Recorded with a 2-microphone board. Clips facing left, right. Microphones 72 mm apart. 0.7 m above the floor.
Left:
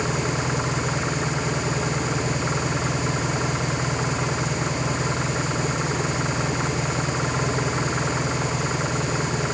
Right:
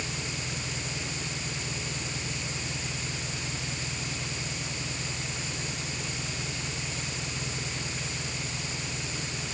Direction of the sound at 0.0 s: 60° left (ahead or behind).